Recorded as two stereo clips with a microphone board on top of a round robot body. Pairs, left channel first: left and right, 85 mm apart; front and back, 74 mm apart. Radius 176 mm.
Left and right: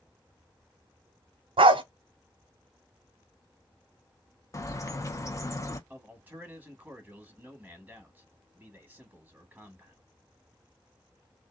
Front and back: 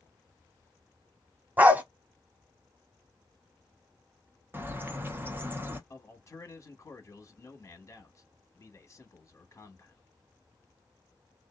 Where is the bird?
130° left, 0.9 m.